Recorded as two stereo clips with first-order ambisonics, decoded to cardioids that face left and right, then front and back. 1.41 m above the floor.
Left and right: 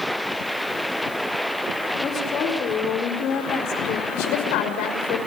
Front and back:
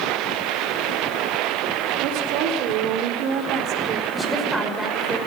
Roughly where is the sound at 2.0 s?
Behind left.